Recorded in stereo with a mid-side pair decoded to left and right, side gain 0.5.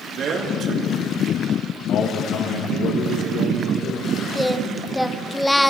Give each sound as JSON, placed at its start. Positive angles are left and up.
{"t": 0.2, "sound": "a man speaking", "azimuth_deg": -55, "distance_m": 3.0}
{"t": 1.9, "sound": "a man speaking", "azimuth_deg": 65, "distance_m": 2.5}
{"t": 4.3, "sound": "singing", "azimuth_deg": 5, "distance_m": 0.8}